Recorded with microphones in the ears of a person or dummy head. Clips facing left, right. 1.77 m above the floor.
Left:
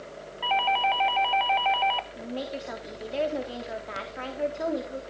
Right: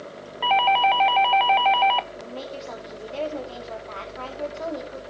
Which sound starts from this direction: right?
A doorbell, at 0.4 s.